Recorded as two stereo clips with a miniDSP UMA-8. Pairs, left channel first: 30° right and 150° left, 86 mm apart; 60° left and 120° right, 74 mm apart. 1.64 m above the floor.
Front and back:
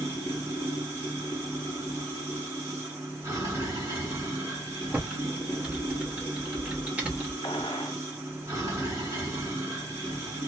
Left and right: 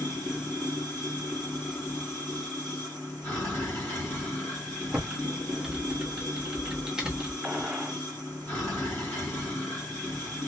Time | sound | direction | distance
0.0 | running water | 115° left | 2 m
4.9 | typing on a keyboard | straight behind | 0.9 m
7.4 | a gunshot | 45° right | 1.0 m